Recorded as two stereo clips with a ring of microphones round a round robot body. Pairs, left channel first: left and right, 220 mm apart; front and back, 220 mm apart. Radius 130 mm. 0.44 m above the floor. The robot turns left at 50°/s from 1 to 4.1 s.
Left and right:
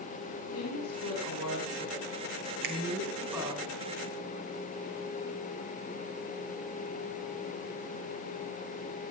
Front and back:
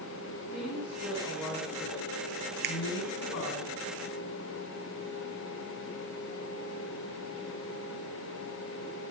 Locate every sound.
0.5 s a woman speaking: 95° left, 4 m; by 3.6 s 35° right, 4 m
2.6 s a finger snap: 140° right, 2.5 m; by 2.8 s 145° right, 2.5 m